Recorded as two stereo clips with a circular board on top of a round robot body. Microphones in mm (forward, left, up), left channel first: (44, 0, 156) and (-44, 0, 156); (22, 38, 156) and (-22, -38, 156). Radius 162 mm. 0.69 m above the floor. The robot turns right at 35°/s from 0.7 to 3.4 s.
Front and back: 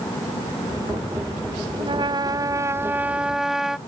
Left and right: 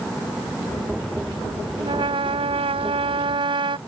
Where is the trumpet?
150° right; by 3.8 s 95° right.